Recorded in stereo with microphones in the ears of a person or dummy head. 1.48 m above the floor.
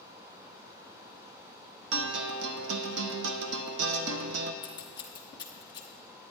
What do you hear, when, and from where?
1.9 s a guitar: 65° right (ahead or behind), 0.6 m
4.6 s scissors: 25° left (ahead or behind), 0.9 m